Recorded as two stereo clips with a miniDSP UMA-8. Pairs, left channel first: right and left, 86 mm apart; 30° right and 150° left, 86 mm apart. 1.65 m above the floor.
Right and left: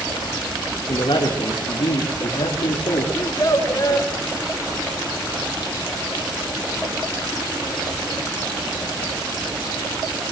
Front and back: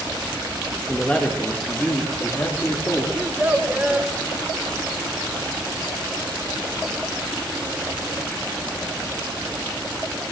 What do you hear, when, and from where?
0.9 s a man speaking: 110° right, 2 m; by 3.0 s 90° right, 3.5 m
3.1 s a child speaking: 135° right, 3.5 m